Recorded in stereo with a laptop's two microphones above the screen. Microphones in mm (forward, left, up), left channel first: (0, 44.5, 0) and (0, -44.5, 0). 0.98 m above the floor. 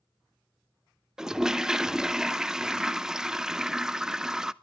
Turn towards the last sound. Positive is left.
turn(degrees=-5)  # may be behind; listen again after turning